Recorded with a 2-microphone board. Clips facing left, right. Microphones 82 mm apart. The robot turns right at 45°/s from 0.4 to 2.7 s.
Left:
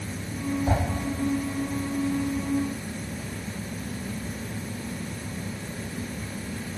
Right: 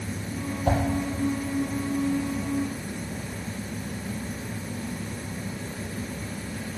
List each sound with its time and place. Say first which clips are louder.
0.7 s a whoosh: right 3 dB; 80° right, 5 m; by 0.8 s 85° right, 5 m